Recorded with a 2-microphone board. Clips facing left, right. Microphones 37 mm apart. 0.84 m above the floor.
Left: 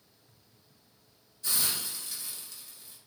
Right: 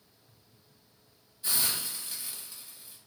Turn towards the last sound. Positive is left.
turn(degrees=-20)  # may be behind; listen again after turning